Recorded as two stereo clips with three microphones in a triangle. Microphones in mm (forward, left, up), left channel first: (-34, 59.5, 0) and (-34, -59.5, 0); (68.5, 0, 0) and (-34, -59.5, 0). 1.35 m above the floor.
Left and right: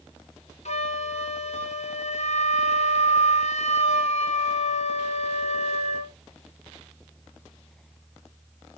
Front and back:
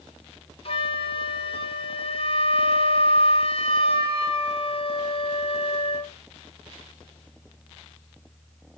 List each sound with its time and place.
0.7 s a flute: 70° left, 1.0 m